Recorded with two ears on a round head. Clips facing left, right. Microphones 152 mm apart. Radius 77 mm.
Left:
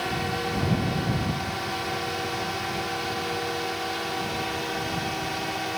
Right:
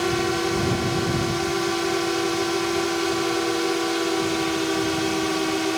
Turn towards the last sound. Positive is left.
turn(degrees=-60)  # may be behind; listen again after turning